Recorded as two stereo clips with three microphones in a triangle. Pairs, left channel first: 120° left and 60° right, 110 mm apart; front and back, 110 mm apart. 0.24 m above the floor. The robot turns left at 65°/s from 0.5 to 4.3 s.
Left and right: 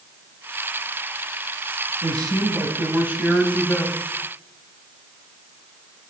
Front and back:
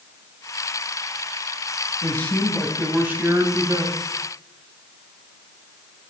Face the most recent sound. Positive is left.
turn(degrees=160)